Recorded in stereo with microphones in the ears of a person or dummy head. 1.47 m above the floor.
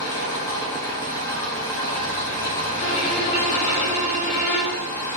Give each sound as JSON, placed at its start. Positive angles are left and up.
{"t": 0.0, "sound": "an engine running", "side_deg": 25, "distance_m": 0.7}
{"t": 2.8, "sound": "a violin", "side_deg": 15, "distance_m": 1.8}